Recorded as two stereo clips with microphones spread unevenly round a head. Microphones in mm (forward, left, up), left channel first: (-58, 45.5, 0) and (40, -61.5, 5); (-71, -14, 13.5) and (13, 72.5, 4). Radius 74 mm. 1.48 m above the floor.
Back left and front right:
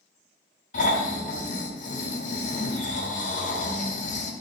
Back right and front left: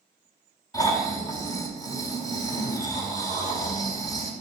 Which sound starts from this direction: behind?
Snoring, at 0.7 s.